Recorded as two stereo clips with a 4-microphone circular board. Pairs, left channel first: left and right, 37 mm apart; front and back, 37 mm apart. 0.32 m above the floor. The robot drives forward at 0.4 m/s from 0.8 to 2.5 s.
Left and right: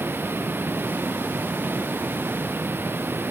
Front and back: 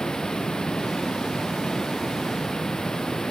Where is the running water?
70° right; by 3.3 s 75° right.